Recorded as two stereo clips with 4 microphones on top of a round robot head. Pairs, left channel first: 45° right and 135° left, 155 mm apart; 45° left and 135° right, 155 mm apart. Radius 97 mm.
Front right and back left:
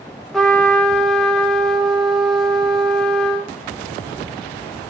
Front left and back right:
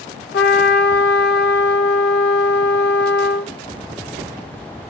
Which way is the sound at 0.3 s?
40° left.